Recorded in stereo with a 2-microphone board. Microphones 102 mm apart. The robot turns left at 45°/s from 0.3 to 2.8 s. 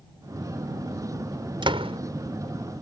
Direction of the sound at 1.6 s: 50° right (ahead or behind).